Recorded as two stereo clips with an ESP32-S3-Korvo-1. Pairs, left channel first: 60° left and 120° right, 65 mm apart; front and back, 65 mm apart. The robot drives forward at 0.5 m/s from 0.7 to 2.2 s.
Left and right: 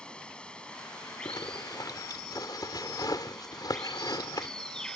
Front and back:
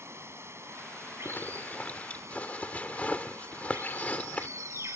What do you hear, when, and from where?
0.0 s running water: 135° left; by 5.0 s 140° left
1.2 s a zipper: 60° left; by 4.5 s 65° left